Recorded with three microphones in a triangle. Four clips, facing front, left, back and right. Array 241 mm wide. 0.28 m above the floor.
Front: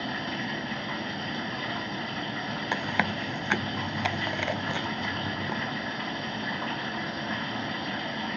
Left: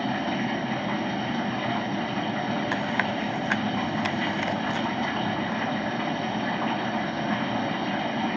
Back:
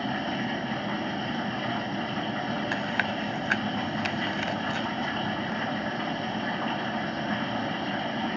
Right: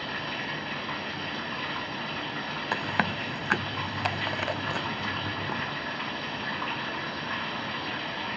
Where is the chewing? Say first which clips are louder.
Left 2 dB, even; 50° right, 0.6 m.